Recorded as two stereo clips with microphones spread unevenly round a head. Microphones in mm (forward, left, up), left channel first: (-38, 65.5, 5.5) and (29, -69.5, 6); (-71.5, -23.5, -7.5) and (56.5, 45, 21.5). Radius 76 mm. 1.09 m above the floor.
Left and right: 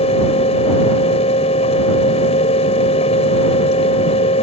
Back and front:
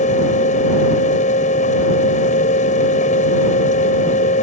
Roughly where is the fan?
Behind.